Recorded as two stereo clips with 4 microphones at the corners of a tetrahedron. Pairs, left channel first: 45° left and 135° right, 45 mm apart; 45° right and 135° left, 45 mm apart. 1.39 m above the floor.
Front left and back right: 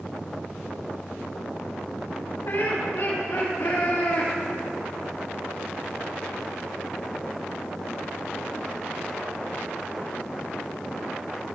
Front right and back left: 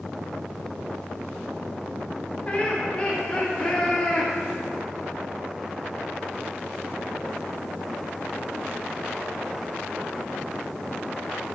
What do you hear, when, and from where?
2.5 s laughter: 20° left, 6 m; by 4.3 s 15° left, 3 m